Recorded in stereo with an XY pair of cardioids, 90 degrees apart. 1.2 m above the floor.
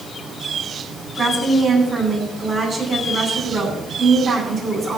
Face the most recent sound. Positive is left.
turn(degrees=-40)